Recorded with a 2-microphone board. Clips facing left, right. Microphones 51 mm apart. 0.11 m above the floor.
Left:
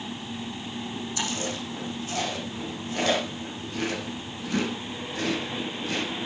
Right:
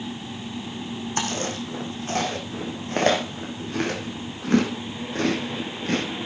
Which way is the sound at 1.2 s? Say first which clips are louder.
Right 4 dB; 55° right (ahead or behind).